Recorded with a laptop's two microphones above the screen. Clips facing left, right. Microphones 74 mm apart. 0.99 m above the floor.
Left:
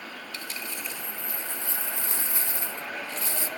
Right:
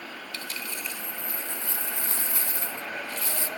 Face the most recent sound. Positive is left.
turn(degrees=25)  # may be behind; listen again after turning